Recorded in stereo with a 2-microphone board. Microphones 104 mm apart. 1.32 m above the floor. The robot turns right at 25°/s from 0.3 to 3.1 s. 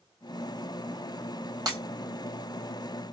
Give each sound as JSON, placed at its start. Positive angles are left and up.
{"t": 1.7, "sound": "breaking glass", "side_deg": -40, "distance_m": 1.3}